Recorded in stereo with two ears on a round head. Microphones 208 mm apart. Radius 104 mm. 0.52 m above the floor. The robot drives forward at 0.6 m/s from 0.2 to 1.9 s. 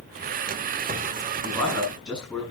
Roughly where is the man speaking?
Centre.